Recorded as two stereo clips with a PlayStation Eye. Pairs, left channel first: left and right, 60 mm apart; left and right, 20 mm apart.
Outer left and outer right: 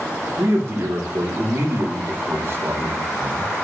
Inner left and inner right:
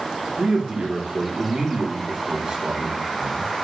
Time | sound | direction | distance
0.4 | a man speaking | 50° right (ahead or behind) | 1.9 m